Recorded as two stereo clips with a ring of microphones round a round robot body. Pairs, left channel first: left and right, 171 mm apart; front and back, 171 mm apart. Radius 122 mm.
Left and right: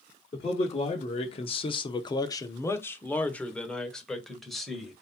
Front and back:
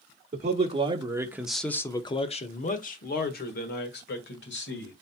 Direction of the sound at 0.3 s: 145° left.